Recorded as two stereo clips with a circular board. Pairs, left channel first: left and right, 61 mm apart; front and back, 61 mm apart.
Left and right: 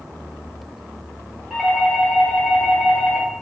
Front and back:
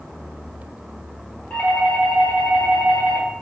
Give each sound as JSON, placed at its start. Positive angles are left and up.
{"t": 1.5, "sound": "a doorbell", "azimuth_deg": -15, "distance_m": 1.5}